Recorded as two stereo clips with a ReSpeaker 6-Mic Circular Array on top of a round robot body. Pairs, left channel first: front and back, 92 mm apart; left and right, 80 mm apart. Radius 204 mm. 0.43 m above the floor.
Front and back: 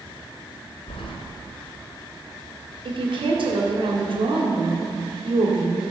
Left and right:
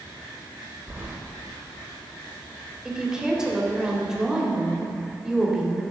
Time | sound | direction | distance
0.9 | keys jangling | 15° right | 1.7 m
2.9 | a woman speaking | 170° right | 3 m